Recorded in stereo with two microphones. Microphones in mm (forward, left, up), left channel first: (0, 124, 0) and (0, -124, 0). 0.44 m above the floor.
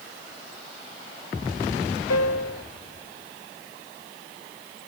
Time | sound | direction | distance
2.1 | a piano | 70° left (ahead or behind) | ?